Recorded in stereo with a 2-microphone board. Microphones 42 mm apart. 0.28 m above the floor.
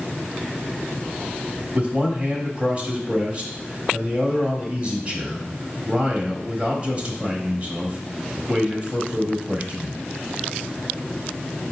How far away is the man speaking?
About 1.1 m.